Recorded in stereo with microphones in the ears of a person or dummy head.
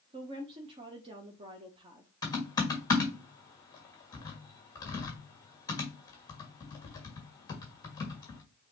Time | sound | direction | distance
0.1 | a woman speaking | 20° right (ahead or behind) | 0.6 m
2.2 | typing on a keyboard | 15° left (ahead or behind) | 1.6 m